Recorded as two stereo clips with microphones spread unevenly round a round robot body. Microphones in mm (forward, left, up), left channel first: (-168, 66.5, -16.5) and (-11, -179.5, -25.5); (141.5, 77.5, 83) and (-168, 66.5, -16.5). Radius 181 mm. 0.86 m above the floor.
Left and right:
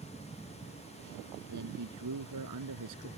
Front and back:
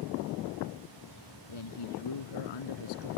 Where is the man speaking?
10° right; by 3.1 s 15° right.